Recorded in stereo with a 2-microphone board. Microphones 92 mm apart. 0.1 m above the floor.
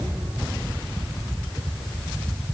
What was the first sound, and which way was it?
Only background noise.